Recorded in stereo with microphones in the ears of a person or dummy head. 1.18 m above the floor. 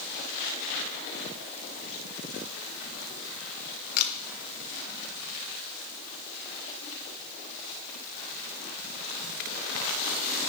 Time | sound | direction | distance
4.0 | a camera shutter | 55° left (ahead or behind) | 1.5 m